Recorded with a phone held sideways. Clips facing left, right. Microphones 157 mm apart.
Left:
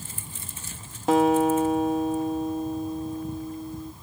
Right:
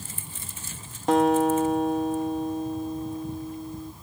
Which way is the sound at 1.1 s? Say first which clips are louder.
Left 1 dB; centre (ahead or behind).